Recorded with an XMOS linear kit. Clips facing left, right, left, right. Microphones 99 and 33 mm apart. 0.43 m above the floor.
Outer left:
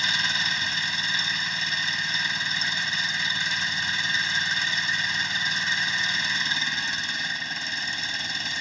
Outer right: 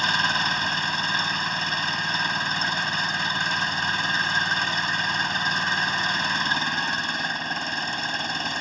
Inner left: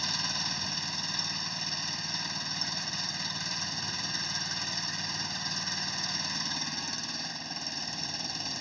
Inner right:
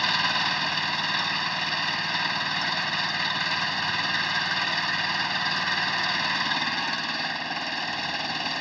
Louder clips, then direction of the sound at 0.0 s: Outer right 5 dB, inner right 10 dB; 55° right (ahead or behind).